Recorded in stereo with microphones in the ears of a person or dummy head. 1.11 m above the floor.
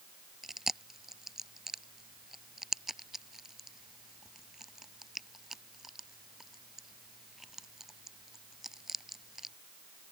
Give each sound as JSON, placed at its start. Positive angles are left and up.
{"t": 0.4, "sound": "chewing", "side_deg": 5}